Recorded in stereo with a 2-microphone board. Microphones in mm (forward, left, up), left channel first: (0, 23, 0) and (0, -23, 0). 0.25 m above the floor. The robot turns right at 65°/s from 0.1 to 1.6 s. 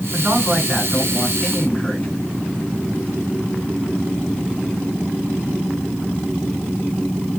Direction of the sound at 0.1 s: 65° right.